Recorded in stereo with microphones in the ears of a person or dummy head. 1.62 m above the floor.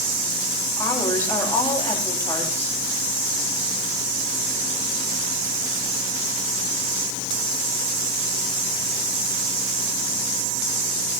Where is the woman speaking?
15° left (ahead or behind), 8.5 m.